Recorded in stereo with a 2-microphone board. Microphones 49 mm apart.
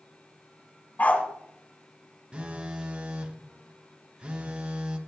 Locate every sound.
1.0 s a dog barking: 30° left (ahead or behind), 1.1 m
2.3 s a phone buzzing: 20° right (ahead or behind), 0.7 m